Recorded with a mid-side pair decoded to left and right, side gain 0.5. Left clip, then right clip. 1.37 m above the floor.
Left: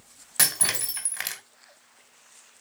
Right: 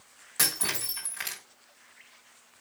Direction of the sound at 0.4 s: 45° left.